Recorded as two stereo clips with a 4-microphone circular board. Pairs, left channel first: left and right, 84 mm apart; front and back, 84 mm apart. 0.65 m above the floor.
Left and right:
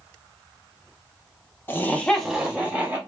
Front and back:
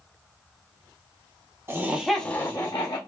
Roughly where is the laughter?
Behind left.